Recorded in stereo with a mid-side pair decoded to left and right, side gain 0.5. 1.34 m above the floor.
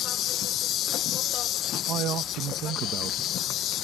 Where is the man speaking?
70° right.